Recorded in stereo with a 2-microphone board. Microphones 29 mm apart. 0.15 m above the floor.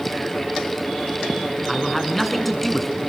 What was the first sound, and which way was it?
A man speaking, 5° left (ahead or behind).